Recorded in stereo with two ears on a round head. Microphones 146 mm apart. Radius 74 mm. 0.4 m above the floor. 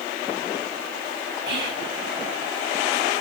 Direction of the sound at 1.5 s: 25° right (ahead or behind).